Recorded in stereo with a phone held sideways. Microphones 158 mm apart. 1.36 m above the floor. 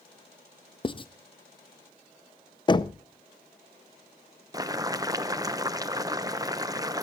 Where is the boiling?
25° right (ahead or behind), 0.7 m.